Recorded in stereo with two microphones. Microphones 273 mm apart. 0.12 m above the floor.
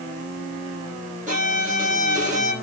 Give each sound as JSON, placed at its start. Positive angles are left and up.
{"t": 1.3, "sound": "a violin", "side_deg": -25, "distance_m": 6.0}